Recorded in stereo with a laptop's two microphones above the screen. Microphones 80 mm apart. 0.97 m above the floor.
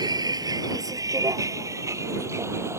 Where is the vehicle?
60° right (ahead or behind); by 2.8 s 35° right (ahead or behind).